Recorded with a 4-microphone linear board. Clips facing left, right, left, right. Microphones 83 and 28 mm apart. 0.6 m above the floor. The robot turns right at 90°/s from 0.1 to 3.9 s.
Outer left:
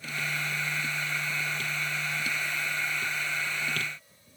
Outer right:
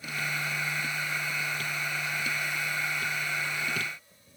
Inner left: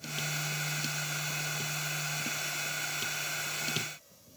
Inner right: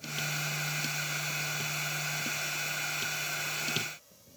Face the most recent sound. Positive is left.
No sound to turn to.